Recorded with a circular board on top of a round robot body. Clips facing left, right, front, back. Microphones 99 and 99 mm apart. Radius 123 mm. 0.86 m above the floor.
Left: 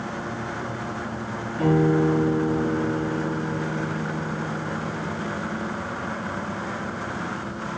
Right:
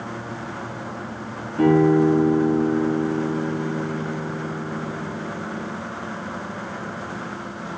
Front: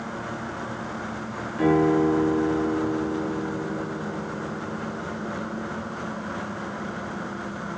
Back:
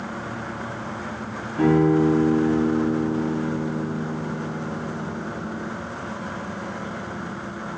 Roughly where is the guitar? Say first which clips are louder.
Right 4 dB, back 2 dB; behind right.